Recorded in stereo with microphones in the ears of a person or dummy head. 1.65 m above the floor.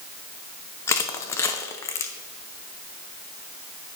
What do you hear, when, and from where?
0.9 s crushing: 15° left (ahead or behind), 0.7 m